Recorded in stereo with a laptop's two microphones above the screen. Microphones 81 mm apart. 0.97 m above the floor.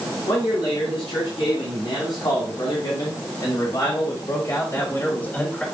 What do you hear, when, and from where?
0.3 s a man speaking: 80° left, 4 m; by 5.7 s 10° left (ahead or behind), 1.6 m